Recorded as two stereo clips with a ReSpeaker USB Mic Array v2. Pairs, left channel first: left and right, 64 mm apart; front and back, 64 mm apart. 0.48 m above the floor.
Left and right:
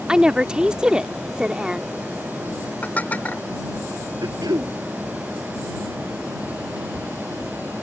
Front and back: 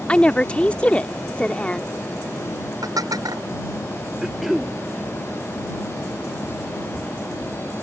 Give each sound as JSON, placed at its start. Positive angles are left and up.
{"t": 0.1, "sound": "a woman speaking", "azimuth_deg": -35}
{"t": 2.8, "sound": "dishes clattering", "azimuth_deg": 155}
{"t": 4.2, "sound": "throat clearing", "azimuth_deg": -95}